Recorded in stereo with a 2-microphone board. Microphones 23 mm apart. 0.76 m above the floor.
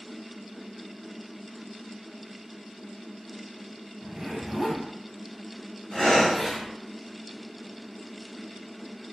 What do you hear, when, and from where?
4.0 s a zipper: 10° right (ahead or behind), 0.6 m
5.9 s breathing: 50° left (ahead or behind), 1.2 m